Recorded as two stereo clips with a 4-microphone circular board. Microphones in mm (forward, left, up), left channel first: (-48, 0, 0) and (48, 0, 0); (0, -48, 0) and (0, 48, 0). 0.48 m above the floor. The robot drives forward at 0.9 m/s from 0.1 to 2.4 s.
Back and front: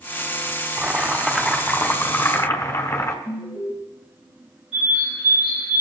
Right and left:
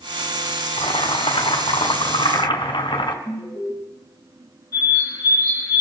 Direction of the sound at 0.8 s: 80° right.